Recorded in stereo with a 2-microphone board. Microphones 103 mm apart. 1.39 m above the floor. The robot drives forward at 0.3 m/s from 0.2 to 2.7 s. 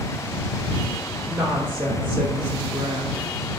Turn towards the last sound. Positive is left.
turn(degrees=-50)  # may be behind; listen again after turning